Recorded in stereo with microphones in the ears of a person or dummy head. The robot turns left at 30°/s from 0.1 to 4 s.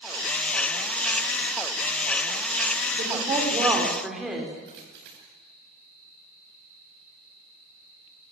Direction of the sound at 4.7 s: 60° right (ahead or behind).